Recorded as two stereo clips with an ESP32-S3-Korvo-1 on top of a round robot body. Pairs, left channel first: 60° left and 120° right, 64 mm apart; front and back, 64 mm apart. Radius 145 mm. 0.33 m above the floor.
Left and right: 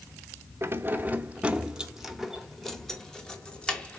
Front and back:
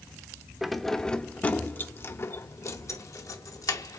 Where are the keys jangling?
95° right, 1.1 m; by 4.0 s 15° right, 2 m.